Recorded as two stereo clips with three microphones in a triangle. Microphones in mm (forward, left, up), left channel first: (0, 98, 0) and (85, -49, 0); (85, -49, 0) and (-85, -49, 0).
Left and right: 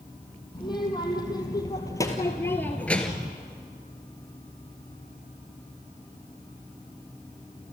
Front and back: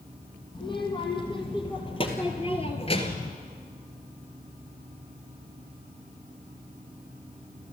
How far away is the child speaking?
About 2.5 m.